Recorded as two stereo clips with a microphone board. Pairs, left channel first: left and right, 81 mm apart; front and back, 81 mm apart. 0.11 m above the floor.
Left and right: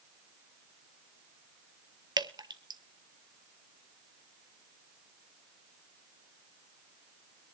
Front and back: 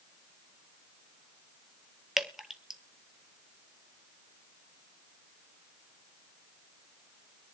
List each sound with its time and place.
2.2 s dripping: 95° right, 0.8 m